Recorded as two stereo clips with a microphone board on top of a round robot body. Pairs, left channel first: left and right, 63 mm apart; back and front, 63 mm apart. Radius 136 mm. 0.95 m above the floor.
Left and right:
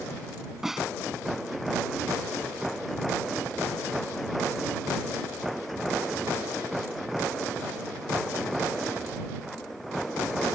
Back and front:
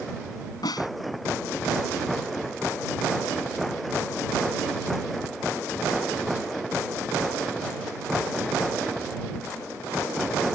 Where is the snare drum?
175° right.